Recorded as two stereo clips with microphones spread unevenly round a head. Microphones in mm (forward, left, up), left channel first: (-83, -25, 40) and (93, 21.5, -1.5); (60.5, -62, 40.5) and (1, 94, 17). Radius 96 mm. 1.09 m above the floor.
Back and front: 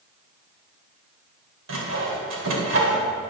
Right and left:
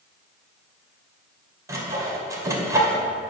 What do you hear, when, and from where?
1.7 s sawing: 35° left, 2 m